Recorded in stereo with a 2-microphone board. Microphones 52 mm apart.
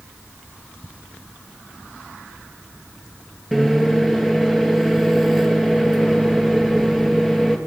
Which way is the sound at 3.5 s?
5° right (ahead or behind).